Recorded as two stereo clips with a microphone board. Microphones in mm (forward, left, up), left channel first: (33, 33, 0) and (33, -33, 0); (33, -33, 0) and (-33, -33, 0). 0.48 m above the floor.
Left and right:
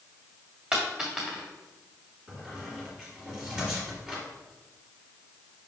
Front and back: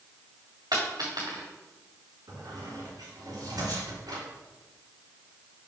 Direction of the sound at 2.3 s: 170° right.